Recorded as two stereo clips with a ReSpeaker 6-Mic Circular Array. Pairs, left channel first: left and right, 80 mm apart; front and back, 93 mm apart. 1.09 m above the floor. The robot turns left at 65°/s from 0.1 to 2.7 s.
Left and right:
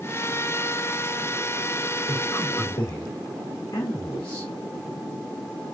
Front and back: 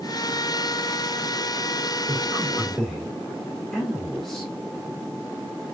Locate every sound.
2.1 s a man speaking: 125° left, 1.8 m; by 4.5 s 85° left, 1.8 m